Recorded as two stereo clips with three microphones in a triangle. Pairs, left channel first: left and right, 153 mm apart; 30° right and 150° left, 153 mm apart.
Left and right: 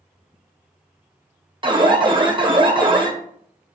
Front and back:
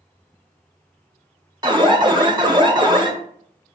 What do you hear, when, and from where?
1.6 s an alarm: 145° right, 0.8 m